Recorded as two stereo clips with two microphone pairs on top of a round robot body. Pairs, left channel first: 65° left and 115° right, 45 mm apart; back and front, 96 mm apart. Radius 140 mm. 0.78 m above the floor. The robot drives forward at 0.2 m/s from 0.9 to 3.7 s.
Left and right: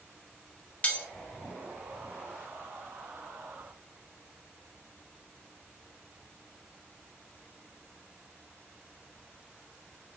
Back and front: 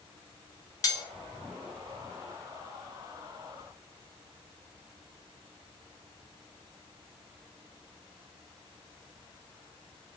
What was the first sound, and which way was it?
Cutlery clinking, 125° left.